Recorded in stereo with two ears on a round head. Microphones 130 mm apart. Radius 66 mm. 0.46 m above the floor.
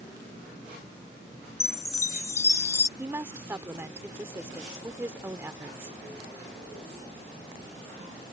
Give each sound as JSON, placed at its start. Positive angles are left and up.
{"t": 1.6, "sound": "a chime", "side_deg": 20}
{"t": 3.0, "sound": "a woman speaking", "side_deg": -15}